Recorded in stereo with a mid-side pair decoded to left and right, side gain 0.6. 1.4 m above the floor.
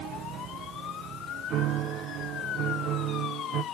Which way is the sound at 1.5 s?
60° right.